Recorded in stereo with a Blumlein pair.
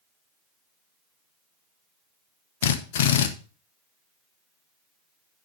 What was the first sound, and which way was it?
A drill, 55° left.